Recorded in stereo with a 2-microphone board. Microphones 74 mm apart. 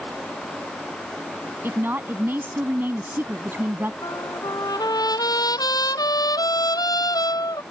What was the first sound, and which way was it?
A woman speaking, 30° right (ahead or behind).